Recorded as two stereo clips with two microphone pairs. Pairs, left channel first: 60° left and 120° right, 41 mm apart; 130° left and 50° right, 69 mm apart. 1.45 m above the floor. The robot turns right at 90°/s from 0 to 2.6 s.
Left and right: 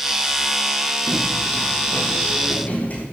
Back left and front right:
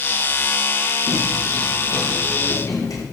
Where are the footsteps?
45° right, 4 m; by 3.0 s 105° left, 4.5 m.